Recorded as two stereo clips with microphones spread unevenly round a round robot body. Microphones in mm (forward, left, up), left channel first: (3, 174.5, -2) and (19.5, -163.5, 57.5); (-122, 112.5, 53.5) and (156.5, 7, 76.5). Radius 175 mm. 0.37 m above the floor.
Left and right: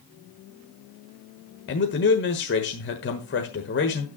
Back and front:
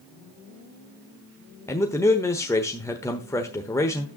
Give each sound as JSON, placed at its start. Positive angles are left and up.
{"t": 1.7, "sound": "a man speaking", "azimuth_deg": 90, "distance_m": 1.2}